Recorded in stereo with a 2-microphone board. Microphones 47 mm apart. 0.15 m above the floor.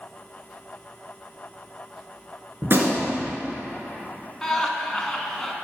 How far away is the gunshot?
About 1.6 m.